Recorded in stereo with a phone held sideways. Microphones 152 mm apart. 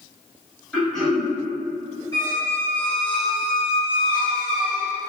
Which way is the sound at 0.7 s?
5° left (ahead or behind).